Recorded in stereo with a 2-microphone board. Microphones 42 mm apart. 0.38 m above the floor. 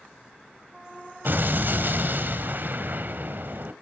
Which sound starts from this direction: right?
An explosion, at 1.2 s.